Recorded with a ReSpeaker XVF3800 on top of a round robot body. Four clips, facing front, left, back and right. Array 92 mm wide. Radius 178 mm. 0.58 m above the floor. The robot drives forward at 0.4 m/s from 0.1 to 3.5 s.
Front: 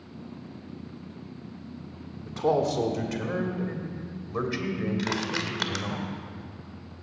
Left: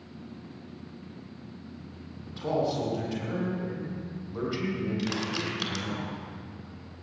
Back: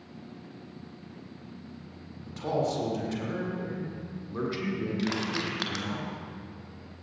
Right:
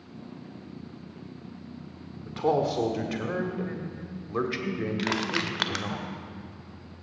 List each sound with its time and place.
2.2 s a man speaking: 65° right, 2.5 m; by 6.0 s 75° right, 2.5 m
5.0 s crushing: 85° right, 1.5 m